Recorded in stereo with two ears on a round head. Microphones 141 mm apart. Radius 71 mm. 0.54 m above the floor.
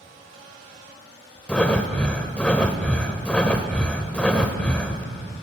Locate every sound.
1.5 s breathing: 5° left (ahead or behind), 0.6 m